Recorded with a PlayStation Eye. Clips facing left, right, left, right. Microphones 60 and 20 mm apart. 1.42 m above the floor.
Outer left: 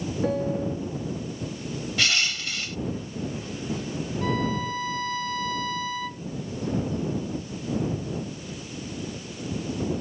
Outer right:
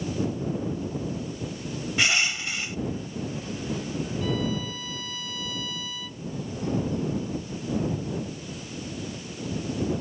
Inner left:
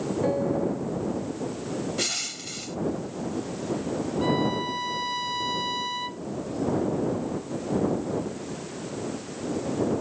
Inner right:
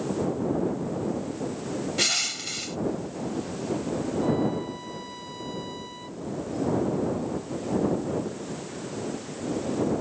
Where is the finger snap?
No finger snap in this recording.